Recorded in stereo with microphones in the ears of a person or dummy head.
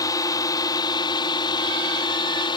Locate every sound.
0.0 s a drone: 20° left (ahead or behind); by 2.6 s 25° left (ahead or behind)